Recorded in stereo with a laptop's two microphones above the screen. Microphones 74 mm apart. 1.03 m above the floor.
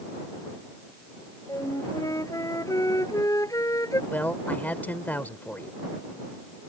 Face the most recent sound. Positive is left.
turn(degrees=25)  # may be behind; listen again after turning